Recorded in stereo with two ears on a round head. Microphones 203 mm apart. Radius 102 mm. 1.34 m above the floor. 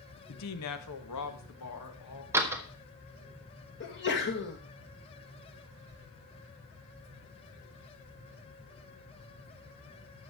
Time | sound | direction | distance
0.3 | a woman speaking | 75° left (ahead or behind) | 1.0 m
2.3 | a door slam | 10° right (ahead or behind) | 1.5 m
3.8 | a sneeze | 45° left (ahead or behind) | 1.6 m